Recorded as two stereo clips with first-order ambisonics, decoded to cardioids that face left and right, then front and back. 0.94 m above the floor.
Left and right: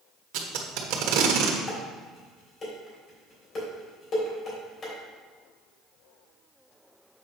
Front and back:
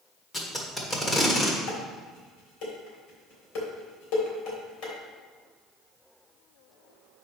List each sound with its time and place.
0.3 s tape being pulled: 75° right, 1.2 m
1.7 s dishes clattering: 30° left, 3 m